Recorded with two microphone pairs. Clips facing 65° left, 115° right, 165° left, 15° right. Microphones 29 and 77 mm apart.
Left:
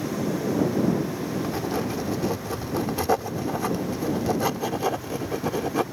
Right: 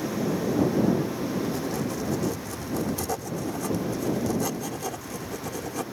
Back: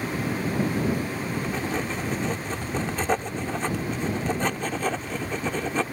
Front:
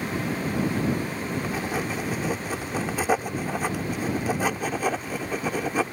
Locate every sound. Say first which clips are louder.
1.4 s writing: left 2 dB, even; 50° left